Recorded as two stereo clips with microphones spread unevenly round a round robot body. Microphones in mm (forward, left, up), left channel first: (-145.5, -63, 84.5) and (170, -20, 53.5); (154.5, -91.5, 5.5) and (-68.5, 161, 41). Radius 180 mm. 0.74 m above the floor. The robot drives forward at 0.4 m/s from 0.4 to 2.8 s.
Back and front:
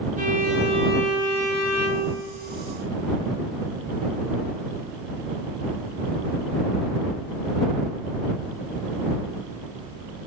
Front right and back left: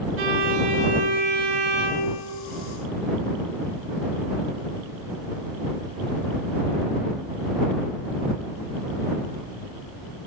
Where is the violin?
75° left, 1.9 m; by 2.3 s 100° left, 1.9 m.